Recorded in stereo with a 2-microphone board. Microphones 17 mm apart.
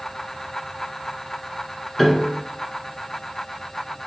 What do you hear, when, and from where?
2.0 s a piano: 10° left (ahead or behind), 0.7 m